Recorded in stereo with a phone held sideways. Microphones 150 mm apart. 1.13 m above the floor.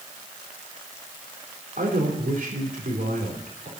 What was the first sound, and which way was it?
A man speaking, 70° right (ahead or behind).